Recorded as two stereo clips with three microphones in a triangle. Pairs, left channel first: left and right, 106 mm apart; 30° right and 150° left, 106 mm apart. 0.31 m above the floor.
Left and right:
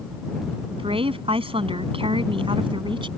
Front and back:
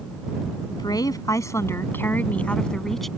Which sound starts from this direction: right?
A woman speaking, at 0.7 s.